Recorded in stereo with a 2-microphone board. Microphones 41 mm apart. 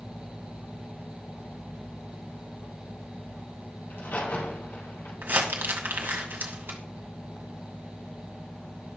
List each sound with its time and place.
3.9 s a crack: 60° left (ahead or behind), 4 m
5.2 s crumpling: 55° right (ahead or behind), 1.9 m